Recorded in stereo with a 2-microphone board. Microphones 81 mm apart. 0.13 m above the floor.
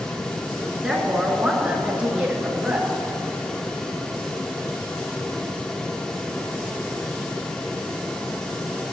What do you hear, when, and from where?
0.8 s a woman speaking: 5° right (ahead or behind), 1.5 m; by 2.9 s 20° right (ahead or behind), 2.5 m